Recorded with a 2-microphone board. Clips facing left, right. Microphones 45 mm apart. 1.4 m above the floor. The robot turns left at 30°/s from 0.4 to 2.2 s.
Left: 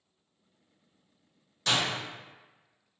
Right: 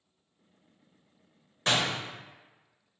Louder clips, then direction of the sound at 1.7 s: Right 1 dB; 30° right (ahead or behind).